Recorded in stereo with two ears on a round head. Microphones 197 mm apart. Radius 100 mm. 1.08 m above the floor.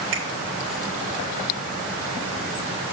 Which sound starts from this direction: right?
A finger snap, at 0.1 s.